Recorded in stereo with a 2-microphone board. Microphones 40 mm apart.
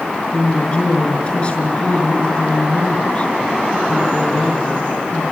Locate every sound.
0.3 s a woman speaking: 30° left (ahead or behind), 6 m